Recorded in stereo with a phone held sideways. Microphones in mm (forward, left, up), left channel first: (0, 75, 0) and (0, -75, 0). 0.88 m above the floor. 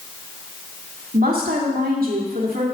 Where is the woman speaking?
75° right (ahead or behind), 2.5 m.